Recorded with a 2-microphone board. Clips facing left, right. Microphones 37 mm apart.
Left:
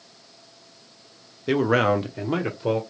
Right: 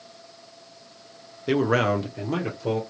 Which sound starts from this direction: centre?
A man speaking, at 1.5 s.